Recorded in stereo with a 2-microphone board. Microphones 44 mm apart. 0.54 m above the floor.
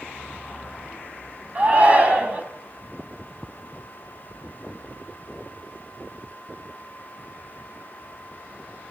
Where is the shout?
30° right (ahead or behind), 5 m.